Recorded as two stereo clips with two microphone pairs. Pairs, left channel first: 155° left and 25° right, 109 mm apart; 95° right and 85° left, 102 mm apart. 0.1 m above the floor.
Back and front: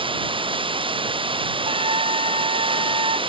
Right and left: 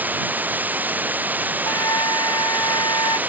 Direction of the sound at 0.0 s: 15° left.